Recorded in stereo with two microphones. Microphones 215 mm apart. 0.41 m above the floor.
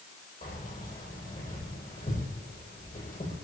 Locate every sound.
0.4 s keys jangling: 40° left (ahead or behind), 9 m